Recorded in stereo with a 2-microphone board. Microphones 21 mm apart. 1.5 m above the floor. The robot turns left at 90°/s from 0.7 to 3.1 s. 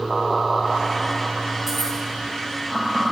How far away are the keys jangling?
About 2 m.